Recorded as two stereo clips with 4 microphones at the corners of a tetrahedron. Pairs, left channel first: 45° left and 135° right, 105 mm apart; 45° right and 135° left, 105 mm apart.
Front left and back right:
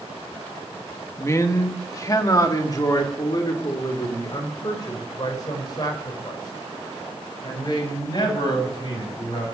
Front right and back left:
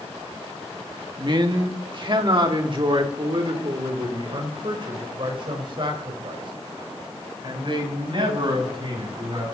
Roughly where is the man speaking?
Left.